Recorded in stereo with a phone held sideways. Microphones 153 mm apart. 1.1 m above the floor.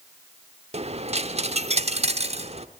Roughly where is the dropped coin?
Right.